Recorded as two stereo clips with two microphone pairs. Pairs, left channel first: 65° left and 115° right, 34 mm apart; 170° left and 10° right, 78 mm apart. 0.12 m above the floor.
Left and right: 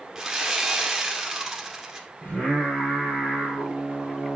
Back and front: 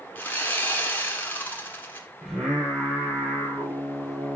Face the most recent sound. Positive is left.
turn(degrees=75)